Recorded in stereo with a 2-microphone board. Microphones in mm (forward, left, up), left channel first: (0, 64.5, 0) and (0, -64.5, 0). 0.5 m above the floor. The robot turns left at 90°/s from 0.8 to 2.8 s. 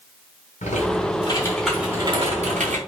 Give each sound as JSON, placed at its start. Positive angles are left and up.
{"t": 0.6, "sound": "typing on a keyboard", "azimuth_deg": 80, "distance_m": 4.0}